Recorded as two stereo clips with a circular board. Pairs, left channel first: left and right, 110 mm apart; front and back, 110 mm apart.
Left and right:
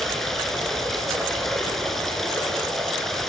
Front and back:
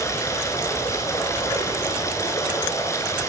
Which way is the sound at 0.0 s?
5° left.